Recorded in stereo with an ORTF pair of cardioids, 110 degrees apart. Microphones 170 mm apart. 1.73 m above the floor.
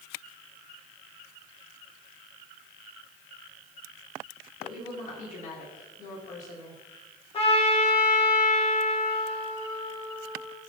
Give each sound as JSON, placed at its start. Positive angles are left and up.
{"t": 4.6, "sound": "a woman speaking", "azimuth_deg": 50, "distance_m": 3.5}
{"t": 7.3, "sound": "a trumpet", "azimuth_deg": 35, "distance_m": 1.7}